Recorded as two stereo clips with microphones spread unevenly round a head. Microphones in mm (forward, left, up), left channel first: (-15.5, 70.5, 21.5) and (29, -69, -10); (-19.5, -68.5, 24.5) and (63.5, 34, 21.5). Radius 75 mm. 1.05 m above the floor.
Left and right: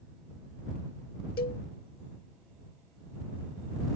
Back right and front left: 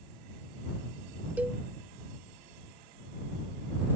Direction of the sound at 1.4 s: 130° left.